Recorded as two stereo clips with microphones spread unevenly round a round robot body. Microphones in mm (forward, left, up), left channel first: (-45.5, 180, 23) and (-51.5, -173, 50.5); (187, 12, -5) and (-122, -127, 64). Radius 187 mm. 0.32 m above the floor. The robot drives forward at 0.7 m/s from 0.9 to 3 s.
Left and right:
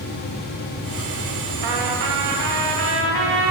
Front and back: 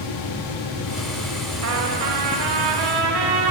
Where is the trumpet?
100° right, 1.0 m; by 3.5 s 145° right, 1.5 m.